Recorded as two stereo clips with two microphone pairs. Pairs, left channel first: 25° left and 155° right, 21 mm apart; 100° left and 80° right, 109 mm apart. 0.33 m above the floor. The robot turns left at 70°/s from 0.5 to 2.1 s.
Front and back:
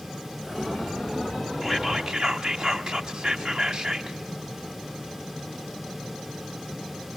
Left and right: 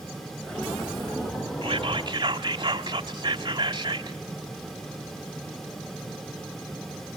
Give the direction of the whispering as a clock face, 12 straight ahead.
3 o'clock.